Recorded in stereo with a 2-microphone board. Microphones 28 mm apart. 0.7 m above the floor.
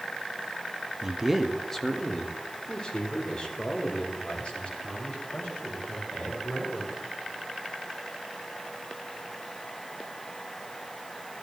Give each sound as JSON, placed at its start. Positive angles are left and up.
{"t": 1.0, "sound": "a man speaking", "side_deg": -25, "distance_m": 0.6}